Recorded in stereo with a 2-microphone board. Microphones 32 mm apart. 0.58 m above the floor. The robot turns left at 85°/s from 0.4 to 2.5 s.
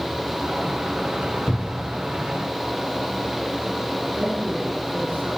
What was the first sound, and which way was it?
A cupboard door, 110° left.